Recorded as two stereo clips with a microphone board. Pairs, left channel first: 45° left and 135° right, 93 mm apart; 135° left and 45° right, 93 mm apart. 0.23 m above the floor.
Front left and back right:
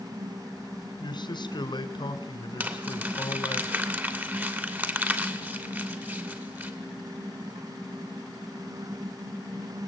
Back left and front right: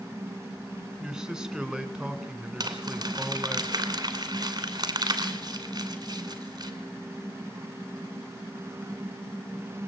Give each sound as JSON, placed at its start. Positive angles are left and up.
{"t": 1.0, "sound": "a man speaking", "azimuth_deg": 35, "distance_m": 2.5}
{"t": 2.6, "sound": "crumpling", "azimuth_deg": -70, "distance_m": 2.5}